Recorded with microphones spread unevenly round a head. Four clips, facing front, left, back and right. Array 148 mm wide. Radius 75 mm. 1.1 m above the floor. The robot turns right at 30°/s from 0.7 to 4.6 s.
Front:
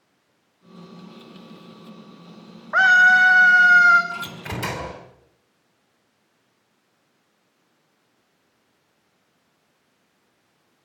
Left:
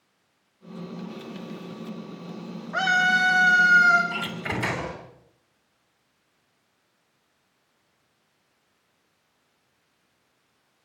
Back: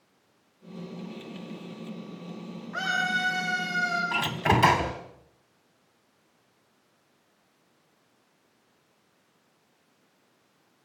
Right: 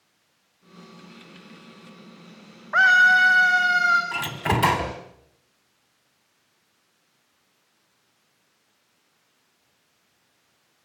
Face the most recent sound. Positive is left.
turn(degrees=-145)